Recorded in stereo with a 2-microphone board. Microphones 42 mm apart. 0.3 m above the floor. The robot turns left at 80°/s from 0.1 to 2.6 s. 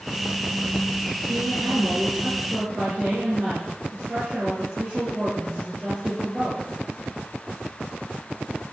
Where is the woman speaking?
45° right, 8 m; by 6.6 s 150° right, 8 m.